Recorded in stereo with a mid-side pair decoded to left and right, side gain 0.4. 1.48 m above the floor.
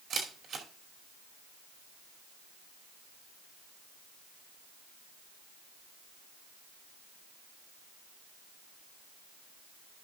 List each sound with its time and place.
0.1 s a camera shutter: 65° right, 2.5 m